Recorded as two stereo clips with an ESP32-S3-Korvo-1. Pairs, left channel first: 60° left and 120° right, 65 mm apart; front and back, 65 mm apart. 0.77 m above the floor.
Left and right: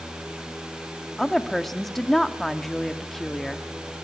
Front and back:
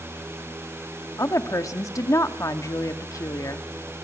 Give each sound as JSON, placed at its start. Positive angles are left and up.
{"t": 1.2, "sound": "a woman speaking", "azimuth_deg": -25, "distance_m": 1.2}